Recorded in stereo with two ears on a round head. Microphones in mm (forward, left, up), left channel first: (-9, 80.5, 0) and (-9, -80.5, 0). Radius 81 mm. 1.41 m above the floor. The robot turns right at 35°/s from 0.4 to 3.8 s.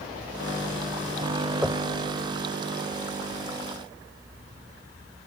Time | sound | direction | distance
1.6 | knocking | 5° right (ahead or behind) | ?